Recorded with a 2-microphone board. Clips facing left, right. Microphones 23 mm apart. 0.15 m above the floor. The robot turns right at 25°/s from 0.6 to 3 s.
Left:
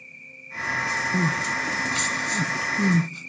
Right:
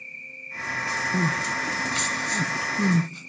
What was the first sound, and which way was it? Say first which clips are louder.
An insect: right 5 dB; 30° right.